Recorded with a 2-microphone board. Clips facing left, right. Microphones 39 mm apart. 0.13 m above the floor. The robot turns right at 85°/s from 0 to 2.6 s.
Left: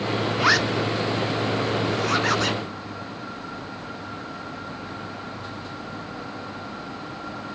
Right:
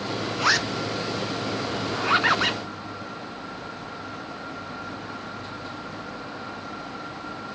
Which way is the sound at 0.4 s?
15° left (ahead or behind).